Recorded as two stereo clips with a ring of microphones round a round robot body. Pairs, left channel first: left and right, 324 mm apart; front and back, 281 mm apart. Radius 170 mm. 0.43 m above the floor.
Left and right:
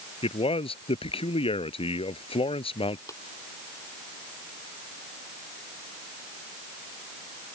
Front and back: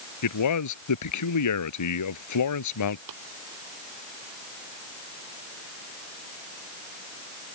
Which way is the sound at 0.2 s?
15° left.